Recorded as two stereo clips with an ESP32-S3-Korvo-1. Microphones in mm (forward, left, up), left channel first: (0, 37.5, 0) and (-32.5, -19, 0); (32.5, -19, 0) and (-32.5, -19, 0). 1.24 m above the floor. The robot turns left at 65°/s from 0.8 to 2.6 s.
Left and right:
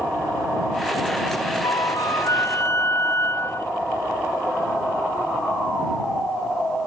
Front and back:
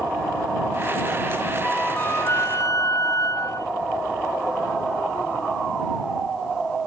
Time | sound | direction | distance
1.6 | a flute | 85° left | ?